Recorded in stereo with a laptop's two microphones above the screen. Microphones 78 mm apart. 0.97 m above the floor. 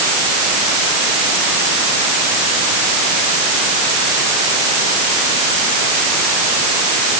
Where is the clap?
No clap in this recording.